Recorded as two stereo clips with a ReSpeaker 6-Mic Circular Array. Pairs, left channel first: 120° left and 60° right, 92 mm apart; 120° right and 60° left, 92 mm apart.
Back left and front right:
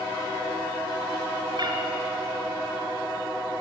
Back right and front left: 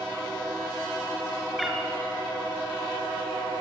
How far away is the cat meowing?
About 3 m.